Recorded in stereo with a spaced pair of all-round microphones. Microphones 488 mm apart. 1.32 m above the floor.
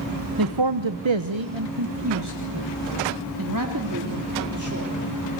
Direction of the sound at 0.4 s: 45° right (ahead or behind).